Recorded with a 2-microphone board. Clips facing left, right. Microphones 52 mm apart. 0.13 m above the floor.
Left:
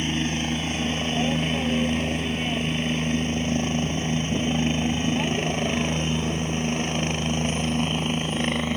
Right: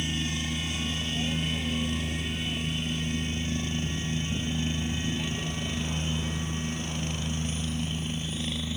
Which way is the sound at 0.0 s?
50° left (ahead or behind).